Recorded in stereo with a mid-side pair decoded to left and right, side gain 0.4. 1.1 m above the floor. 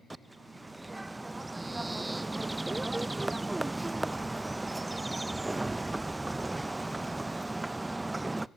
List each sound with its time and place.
0.1 s a bird: 20° right, 0.6 m